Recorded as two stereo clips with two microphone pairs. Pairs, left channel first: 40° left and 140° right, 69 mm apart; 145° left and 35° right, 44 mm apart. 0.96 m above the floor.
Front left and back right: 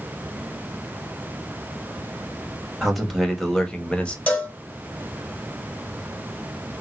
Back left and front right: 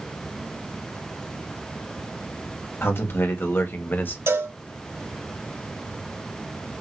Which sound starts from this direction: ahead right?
A cowbell, at 4.3 s.